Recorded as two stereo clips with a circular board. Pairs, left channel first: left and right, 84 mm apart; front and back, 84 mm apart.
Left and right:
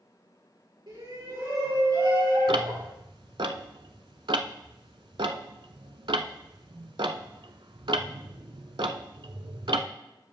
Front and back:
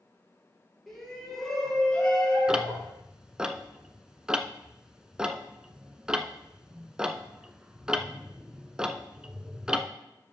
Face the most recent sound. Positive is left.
turn(degrees=-100)